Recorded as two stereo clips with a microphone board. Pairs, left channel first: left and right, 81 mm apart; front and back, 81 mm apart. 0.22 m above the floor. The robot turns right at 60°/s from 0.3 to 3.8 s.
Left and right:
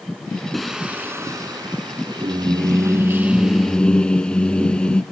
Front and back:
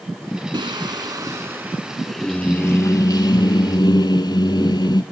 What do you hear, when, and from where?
0.5 s singing: 175° left, 0.7 m; by 5.0 s 15° left, 0.7 m